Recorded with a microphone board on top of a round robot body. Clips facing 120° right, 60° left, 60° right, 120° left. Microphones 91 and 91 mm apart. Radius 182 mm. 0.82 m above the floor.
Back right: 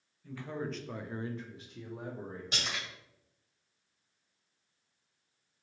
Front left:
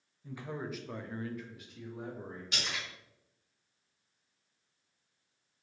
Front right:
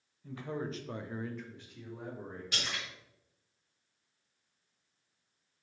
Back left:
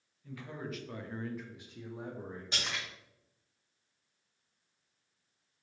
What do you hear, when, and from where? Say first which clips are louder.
0.2 s a man speaking: back right 2 dB, front right 4 dB; 10° right, 0.9 m; by 2.4 s 175° right, 1.3 m
2.5 s a splash: even, back left 1 dB; 175° right, 1.8 m